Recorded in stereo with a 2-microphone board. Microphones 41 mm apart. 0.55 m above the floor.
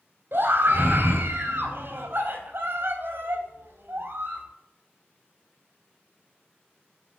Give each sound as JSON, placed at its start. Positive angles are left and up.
{"t": 0.3, "sound": "a scream", "side_deg": -65, "distance_m": 3.5}